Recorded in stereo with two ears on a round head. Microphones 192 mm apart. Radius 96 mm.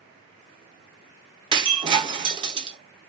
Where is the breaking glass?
20° right (ahead or behind), 0.5 m.